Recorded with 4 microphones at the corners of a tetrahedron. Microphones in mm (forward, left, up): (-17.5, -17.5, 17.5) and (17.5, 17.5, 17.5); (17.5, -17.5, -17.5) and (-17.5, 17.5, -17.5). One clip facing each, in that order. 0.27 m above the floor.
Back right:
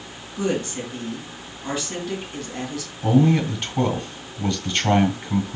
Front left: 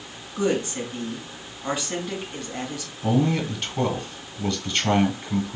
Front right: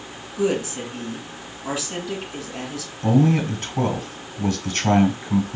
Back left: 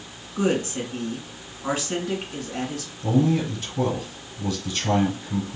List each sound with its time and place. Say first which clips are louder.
0.4 s a woman speaking: front left 1 dB, front right 1 dB; 115° left, 3 m
3.0 s a man speaking: back right 4 dB, front right 3 dB; 75° right, 1.7 m